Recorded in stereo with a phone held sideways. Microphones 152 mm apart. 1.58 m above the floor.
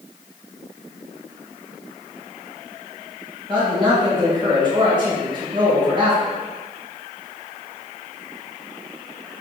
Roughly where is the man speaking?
Right.